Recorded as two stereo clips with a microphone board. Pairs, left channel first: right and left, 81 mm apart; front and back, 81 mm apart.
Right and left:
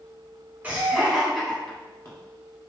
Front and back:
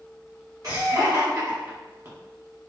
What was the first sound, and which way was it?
Laughter, 155° left.